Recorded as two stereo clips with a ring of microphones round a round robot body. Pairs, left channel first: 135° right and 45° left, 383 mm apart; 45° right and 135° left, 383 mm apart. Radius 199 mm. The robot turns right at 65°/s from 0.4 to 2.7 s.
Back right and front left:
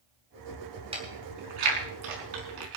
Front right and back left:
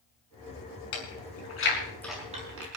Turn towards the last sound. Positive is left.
turn(degrees=85)